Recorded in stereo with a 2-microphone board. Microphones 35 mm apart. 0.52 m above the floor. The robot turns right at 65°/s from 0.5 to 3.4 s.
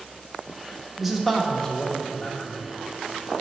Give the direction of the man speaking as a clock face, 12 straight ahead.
1 o'clock.